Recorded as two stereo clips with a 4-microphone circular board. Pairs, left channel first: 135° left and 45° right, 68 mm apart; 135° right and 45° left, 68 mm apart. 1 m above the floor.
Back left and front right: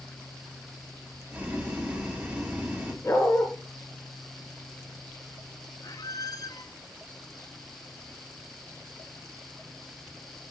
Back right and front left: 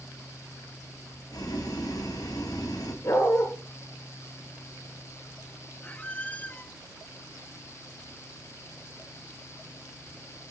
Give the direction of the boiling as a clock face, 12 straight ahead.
4 o'clock.